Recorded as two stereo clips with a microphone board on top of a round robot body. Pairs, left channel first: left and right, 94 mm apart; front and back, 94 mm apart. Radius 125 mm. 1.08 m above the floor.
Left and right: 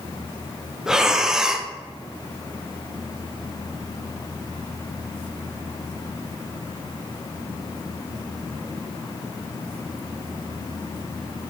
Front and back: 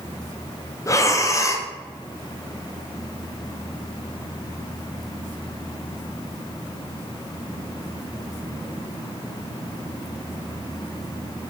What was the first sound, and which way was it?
Breathing, 10° right.